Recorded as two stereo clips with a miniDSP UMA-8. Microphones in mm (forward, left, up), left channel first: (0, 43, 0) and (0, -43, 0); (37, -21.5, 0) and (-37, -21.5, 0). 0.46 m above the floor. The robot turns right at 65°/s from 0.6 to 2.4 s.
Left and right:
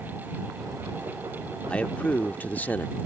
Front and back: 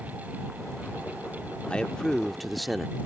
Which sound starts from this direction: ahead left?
A man speaking, at 1.7 s.